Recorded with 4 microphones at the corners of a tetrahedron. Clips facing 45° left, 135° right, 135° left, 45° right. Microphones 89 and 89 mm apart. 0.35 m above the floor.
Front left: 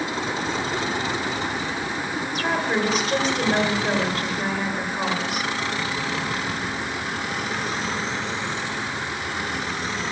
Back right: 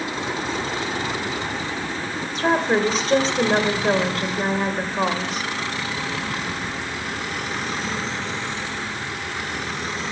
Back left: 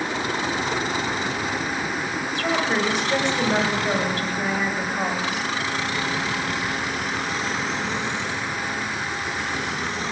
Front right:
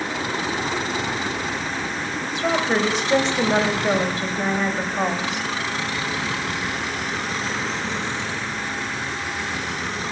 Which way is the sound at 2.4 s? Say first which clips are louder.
Back right 5 dB, front right 2 dB; 100° right.